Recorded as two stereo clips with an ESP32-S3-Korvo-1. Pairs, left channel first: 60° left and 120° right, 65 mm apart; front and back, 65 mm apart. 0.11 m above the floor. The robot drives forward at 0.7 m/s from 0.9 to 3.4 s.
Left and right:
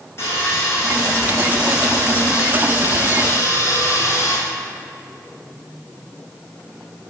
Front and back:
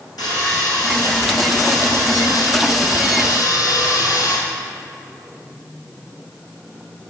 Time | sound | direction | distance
0.2 | sawing | 10° left | 4 m